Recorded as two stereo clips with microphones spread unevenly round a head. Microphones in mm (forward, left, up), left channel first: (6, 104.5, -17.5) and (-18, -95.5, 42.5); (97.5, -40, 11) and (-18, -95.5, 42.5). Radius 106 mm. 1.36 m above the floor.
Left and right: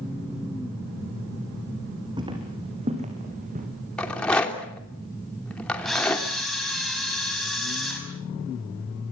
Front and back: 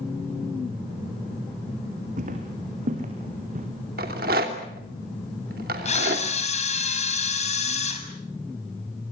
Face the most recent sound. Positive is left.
turn(degrees=-10)